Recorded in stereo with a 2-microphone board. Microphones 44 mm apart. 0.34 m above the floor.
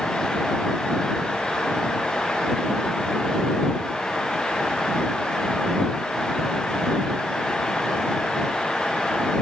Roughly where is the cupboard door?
No cupboard door in this recording.